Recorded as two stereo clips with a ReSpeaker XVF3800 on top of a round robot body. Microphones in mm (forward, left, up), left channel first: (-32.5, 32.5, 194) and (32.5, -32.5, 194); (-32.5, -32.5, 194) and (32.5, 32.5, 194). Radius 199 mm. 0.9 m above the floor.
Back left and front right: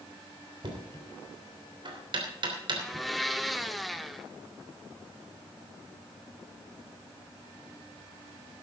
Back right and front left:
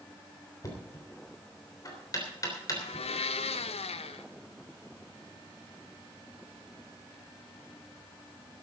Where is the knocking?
80° right, 3.5 m.